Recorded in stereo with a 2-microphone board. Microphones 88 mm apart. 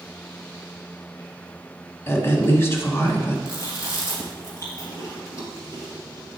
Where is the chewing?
40° left (ahead or behind), 1.9 m.